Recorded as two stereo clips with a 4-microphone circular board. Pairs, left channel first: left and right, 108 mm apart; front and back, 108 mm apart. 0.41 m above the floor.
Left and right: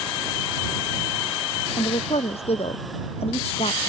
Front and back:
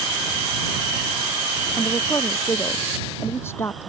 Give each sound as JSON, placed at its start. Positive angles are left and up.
{"t": 1.8, "sound": "a woman speaking", "azimuth_deg": 70}